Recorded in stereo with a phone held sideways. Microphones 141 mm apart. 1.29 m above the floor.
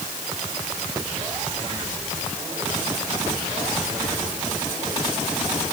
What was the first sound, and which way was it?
Only background noise.